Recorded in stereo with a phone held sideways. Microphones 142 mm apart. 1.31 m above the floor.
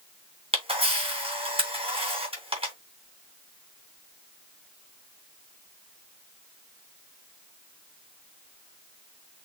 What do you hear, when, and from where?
0.5 s a camera shutter: 40° right (ahead or behind), 2.5 m